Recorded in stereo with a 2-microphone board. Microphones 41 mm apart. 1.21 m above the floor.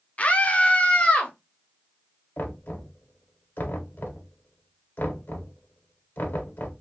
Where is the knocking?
50° left (ahead or behind), 0.7 m.